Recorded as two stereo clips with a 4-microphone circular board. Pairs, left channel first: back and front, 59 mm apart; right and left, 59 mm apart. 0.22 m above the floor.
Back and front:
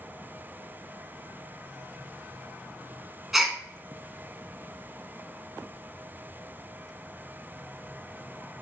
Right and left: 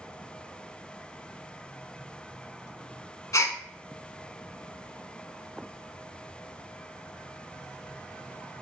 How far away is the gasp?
About 0.5 m.